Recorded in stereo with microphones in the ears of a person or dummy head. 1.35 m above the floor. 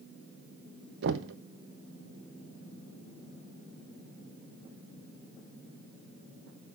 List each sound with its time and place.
1.0 s knocking: 65° right (ahead or behind), 1.0 m